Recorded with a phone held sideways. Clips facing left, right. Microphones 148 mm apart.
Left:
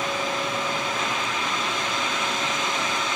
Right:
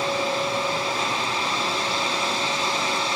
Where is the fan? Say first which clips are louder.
Right 3 dB; 35° right (ahead or behind), 0.9 m.